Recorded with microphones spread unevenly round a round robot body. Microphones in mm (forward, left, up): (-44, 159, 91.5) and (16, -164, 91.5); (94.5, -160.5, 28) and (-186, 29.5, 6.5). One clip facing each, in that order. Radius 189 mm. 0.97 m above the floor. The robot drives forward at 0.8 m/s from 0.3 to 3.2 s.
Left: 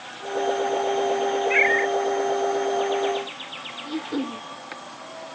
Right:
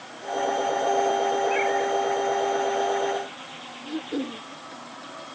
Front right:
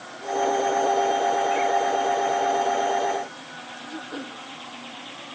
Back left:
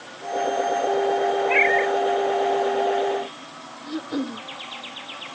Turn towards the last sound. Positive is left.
turn(degrees=180)